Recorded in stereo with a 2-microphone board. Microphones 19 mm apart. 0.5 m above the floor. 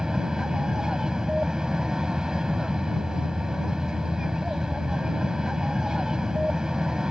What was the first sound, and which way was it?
An aircraft, 40° right (ahead or behind).